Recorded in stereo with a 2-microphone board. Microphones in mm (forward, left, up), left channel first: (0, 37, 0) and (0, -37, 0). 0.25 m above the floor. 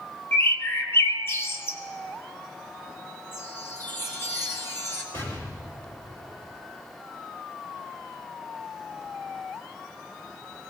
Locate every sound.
0.3 s a bird: 35° left (ahead or behind), 1.1 m
3.3 s a chime: 40° left (ahead or behind), 2 m
5.1 s an explosion: 45° left (ahead or behind), 3.5 m